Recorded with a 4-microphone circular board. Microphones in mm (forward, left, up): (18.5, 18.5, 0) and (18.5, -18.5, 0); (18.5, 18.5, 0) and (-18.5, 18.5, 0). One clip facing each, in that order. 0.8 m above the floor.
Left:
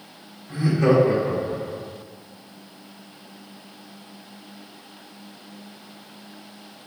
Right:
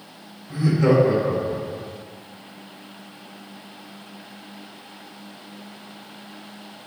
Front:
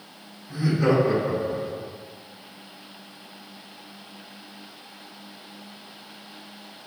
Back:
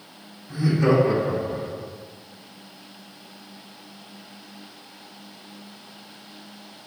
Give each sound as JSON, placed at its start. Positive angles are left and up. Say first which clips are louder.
{"t": 0.5, "sound": "laughter", "louder": "even, back 2 dB", "azimuth_deg": 75, "distance_m": 1.6}